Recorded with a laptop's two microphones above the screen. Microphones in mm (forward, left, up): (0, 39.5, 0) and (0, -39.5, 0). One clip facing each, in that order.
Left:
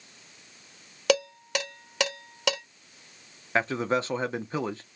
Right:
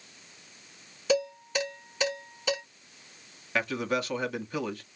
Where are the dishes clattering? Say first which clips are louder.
Left 2 dB; 75° left (ahead or behind), 1.3 m.